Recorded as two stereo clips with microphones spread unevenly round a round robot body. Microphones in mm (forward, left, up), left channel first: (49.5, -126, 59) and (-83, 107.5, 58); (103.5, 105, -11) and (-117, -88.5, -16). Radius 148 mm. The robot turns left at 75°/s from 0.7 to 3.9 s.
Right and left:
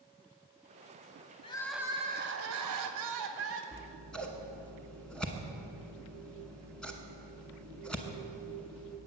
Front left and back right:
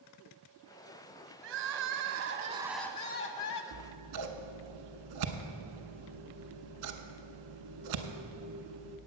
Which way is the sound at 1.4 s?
130° right.